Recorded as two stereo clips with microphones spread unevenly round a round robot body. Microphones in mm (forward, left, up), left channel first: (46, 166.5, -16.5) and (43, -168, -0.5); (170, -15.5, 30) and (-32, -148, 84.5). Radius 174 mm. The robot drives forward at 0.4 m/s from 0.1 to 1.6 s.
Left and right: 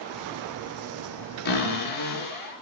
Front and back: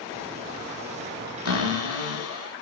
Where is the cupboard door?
135° left, 6 m.